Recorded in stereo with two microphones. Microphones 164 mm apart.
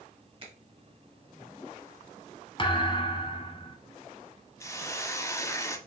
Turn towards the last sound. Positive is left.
turn(degrees=20)  # may be behind; listen again after turning